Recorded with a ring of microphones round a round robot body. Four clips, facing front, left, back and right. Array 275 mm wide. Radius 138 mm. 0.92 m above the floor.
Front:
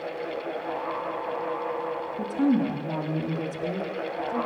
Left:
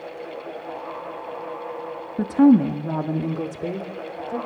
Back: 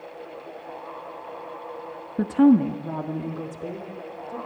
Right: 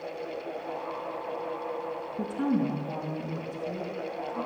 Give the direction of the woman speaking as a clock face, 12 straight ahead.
7 o'clock.